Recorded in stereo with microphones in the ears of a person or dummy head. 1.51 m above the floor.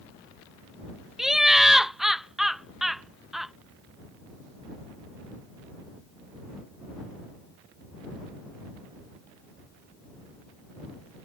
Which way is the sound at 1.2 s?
5° right (ahead or behind).